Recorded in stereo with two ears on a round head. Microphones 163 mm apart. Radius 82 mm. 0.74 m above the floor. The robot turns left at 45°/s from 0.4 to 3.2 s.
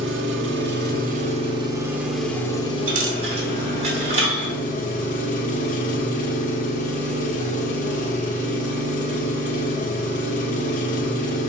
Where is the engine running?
100° right, 1.3 m; by 11.5 s 135° left, 1.3 m.